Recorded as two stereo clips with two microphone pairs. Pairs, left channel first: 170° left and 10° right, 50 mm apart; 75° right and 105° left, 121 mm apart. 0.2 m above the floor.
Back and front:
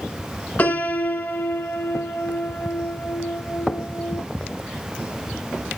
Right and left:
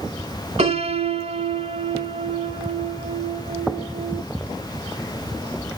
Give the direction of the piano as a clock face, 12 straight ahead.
8 o'clock.